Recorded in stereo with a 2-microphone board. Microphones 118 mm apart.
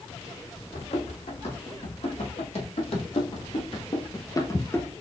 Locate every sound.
0.7 s running footsteps: 65° left (ahead or behind), 2.5 m; by 4.9 s 15° left (ahead or behind), 1.1 m